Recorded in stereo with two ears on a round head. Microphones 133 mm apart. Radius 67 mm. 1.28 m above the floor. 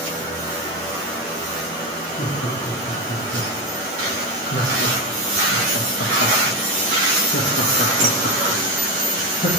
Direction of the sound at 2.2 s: 45° left (ahead or behind).